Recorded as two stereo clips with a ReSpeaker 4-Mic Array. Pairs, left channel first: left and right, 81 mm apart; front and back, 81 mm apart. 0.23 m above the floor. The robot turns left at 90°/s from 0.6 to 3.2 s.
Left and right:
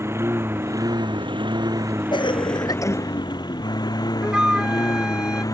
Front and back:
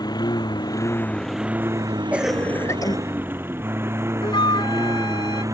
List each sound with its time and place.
0.0 s a lawn mower: 35° right; by 5.5 s 130° left
2.1 s a cough: 110° left; by 3.0 s 30° left
4.2 s a flute: 10° right